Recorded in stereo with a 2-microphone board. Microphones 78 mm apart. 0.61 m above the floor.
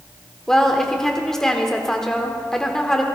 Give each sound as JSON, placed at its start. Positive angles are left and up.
{"t": 0.5, "sound": "a woman speaking", "side_deg": 5, "distance_m": 1.3}